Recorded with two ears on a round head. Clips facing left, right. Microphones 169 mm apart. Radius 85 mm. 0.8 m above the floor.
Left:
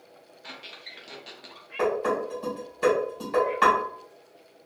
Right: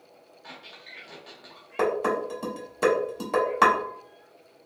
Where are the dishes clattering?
65° right (ahead or behind), 1.4 m.